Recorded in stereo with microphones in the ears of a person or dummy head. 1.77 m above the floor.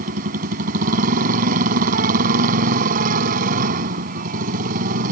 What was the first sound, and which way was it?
A motorcycle, 45° right (ahead or behind).